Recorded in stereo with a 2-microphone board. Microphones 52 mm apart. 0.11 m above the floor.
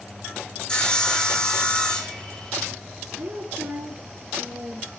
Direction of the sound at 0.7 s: 15° left (ahead or behind).